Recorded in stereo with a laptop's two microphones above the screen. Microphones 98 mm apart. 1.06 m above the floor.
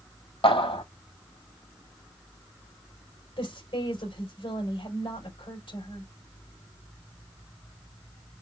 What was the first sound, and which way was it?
A clap, 75° left (ahead or behind).